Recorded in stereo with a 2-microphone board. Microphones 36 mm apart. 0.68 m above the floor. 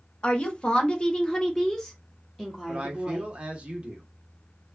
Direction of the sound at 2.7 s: 35° right (ahead or behind).